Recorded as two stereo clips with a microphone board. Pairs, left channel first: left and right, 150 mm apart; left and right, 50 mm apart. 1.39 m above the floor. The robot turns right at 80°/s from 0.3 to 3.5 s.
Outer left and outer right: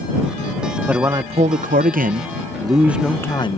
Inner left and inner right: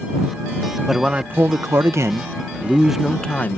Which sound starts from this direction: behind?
A man speaking, at 0.9 s.